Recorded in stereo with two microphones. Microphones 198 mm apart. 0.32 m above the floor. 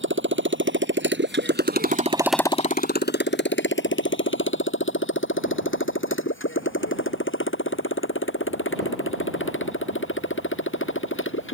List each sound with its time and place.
0.0 s a motorcycle: 80° right; by 11.5 s 85° left